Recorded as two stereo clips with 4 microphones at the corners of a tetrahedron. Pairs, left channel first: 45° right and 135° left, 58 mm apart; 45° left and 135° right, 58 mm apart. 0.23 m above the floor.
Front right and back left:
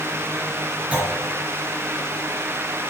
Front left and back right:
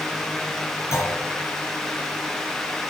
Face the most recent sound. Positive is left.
turn(degrees=65)